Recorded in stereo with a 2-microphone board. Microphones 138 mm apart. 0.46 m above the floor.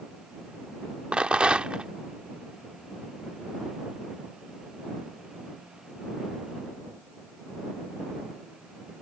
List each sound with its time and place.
1.1 s a rattle: 10° right (ahead or behind)